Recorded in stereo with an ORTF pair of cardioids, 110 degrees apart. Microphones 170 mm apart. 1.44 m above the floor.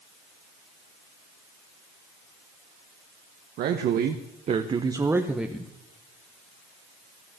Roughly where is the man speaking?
Right.